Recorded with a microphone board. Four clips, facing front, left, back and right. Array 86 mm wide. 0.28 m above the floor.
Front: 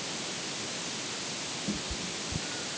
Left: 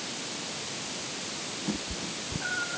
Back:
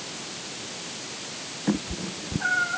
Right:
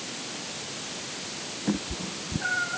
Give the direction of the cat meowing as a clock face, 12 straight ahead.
5 o'clock.